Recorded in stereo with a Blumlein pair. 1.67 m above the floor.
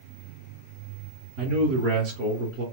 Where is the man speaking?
50° right, 0.9 m.